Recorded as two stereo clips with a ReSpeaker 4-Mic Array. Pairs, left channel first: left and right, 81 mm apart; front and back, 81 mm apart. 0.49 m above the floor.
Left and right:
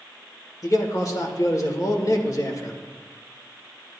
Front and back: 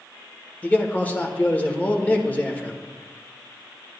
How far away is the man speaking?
About 1.3 m.